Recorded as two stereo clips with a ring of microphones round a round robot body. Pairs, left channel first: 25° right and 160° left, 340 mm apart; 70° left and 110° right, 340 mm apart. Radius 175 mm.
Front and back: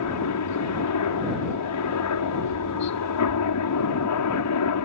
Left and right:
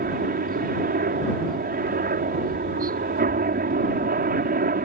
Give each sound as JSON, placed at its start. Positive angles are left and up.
{"t": 0.0, "sound": "a helicopter", "azimuth_deg": -50}